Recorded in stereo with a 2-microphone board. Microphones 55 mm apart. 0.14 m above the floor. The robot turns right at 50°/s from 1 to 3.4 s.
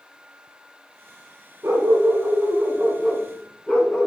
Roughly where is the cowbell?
No cowbell in this recording.